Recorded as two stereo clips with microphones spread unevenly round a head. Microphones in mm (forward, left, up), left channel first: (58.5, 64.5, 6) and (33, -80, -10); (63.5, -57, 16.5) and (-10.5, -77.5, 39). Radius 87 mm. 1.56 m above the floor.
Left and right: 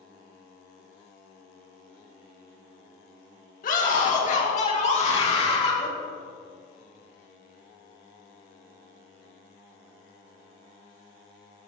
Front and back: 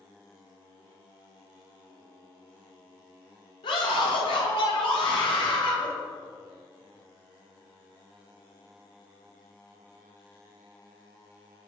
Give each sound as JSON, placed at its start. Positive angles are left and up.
{"t": 3.6, "sound": "a scream", "azimuth_deg": 50, "distance_m": 2.5}